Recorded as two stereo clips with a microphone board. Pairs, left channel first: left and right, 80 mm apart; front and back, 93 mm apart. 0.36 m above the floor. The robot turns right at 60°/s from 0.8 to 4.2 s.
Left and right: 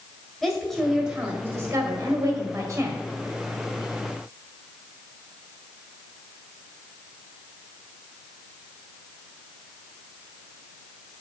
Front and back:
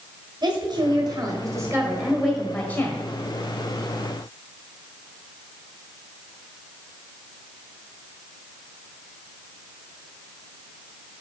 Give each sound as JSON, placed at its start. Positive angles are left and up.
{"t": 0.4, "sound": "a woman speaking", "azimuth_deg": 180, "distance_m": 1.6}